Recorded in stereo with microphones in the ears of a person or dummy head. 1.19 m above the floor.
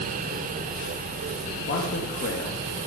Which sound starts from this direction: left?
A man speaking, at 1.7 s.